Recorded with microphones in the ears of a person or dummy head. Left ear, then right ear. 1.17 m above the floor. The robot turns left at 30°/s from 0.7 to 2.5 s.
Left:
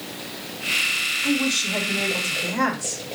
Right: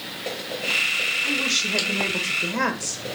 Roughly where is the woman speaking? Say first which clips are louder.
Even; ahead right.